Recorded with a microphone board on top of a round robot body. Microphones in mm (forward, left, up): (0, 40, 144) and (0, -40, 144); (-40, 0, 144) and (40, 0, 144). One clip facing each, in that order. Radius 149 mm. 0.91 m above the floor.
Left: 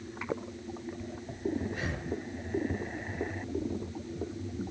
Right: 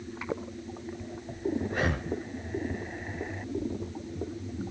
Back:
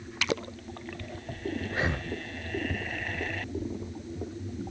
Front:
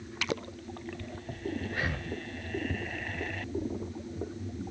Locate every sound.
1.7 s breathing: 115° right, 0.6 m